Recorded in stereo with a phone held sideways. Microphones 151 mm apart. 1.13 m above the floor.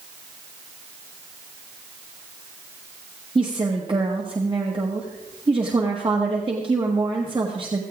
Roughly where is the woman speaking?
Right.